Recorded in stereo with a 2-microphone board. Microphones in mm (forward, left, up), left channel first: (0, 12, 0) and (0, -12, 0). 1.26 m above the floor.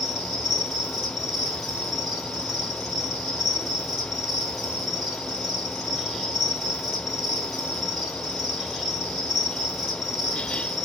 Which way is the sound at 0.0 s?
5° left (ahead or behind).